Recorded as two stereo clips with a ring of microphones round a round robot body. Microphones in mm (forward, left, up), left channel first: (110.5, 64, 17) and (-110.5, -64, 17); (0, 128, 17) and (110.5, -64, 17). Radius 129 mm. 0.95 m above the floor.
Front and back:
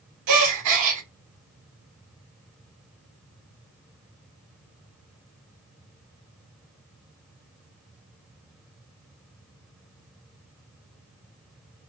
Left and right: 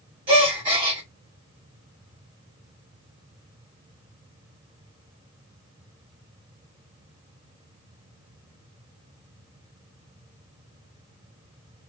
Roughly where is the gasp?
Behind right.